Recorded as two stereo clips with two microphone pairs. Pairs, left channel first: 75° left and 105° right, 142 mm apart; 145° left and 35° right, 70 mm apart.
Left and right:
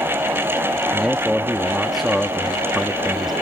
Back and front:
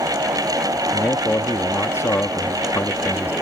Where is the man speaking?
165° left.